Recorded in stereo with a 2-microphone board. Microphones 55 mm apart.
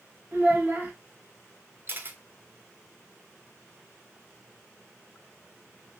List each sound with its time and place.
0.3 s a child speaking: 35° right (ahead or behind), 0.9 m
1.9 s a camera shutter: 40° right (ahead or behind), 0.7 m